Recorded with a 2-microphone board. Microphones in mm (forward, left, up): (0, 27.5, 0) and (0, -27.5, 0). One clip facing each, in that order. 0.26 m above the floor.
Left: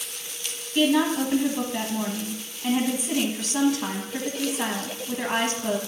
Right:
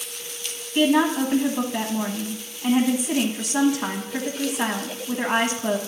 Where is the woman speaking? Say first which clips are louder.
Right 2 dB; 20° right (ahead or behind), 1.4 m.